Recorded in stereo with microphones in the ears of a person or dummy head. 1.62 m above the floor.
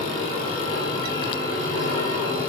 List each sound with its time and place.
0.0 s a machine running: 40° right (ahead or behind), 6 m